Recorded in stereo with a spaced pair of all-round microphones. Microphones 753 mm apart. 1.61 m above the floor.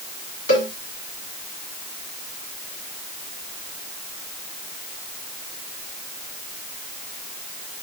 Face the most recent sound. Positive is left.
turn(degrees=35)  # may be behind; listen again after turning